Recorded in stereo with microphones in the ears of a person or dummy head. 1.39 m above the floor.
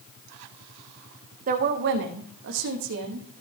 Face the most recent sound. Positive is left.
turn(degrees=-50)  # may be behind; listen again after turning